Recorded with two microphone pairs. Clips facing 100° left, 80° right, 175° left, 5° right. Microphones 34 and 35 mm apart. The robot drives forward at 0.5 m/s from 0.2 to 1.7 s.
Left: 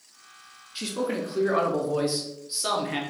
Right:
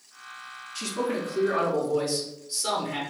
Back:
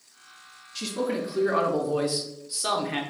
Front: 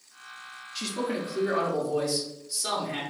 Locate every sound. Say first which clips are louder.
0.8 s a man speaking: even, back 2 dB; 80° left, 0.7 m; by 3.0 s 155° left, 0.8 m